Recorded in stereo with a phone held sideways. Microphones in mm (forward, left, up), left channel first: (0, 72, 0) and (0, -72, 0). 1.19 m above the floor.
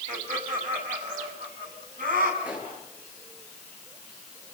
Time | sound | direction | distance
0.1 | laughter | 70° right (ahead or behind) | 6.5 m
2.4 | a pop | 10° right (ahead or behind) | 7 m